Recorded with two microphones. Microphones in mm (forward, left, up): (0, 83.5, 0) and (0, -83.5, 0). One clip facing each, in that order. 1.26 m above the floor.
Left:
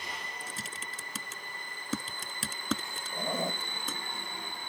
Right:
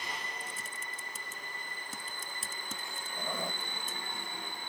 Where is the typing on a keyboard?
85° left.